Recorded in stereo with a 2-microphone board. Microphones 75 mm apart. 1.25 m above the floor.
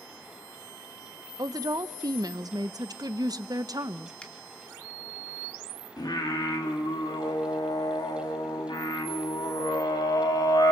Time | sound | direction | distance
1.4 | a woman speaking | 55° right (ahead or behind) | 0.7 m
4.2 | a finger snap | 15° left (ahead or behind) | 2.5 m
6.0 | singing | 65° left (ahead or behind) | 3 m